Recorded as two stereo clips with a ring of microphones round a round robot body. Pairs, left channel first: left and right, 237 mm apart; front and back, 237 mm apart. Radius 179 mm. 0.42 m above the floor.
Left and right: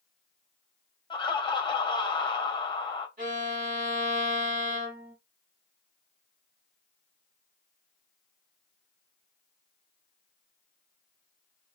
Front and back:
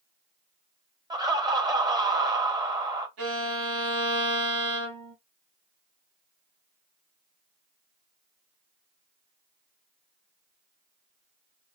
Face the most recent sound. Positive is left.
turn(degrees=-150)